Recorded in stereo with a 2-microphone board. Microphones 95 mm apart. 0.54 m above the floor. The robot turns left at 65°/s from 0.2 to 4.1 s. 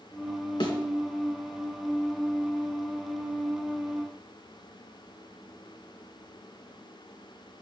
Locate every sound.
0.6 s a thud: 55° left (ahead or behind), 3 m; by 0.8 s 45° left (ahead or behind), 3 m